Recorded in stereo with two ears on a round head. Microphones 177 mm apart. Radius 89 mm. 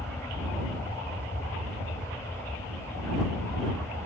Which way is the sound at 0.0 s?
5° left (ahead or behind).